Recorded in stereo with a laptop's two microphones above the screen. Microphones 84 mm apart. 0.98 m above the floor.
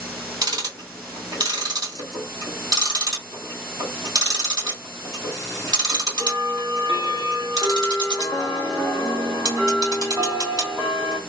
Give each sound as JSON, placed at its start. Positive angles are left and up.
{"t": 0.4, "sound": "ticking", "side_deg": -55, "distance_m": 1.6}